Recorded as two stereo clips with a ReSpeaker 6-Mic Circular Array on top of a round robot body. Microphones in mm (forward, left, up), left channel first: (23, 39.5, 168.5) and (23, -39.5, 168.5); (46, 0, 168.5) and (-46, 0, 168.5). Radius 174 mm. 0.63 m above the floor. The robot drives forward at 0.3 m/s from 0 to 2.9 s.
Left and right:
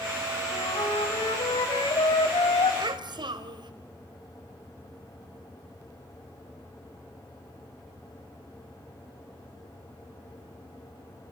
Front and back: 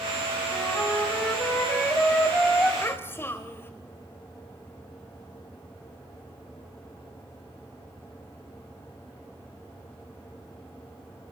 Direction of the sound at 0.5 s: 70° left.